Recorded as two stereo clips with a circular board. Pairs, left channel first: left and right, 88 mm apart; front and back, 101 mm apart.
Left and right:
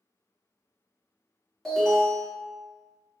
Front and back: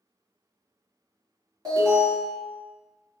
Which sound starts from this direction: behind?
An alarm, at 1.6 s.